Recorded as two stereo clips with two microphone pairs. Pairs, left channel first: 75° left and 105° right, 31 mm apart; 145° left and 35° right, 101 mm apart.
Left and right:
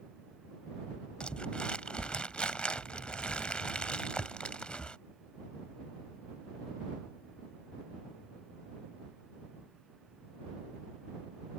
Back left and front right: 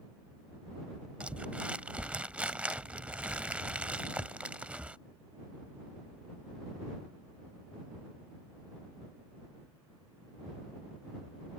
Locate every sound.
1.2 s crumpling: 35° left